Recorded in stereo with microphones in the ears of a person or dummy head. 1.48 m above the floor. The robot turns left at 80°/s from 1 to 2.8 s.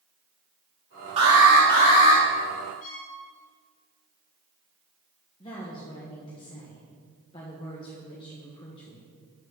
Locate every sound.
1.2 s an alarm: 145° right, 3 m; by 2.2 s 130° left, 3 m
2.8 s a violin: 40° left (ahead or behind), 3 m
5.4 s a woman speaking: 25° left (ahead or behind), 1.5 m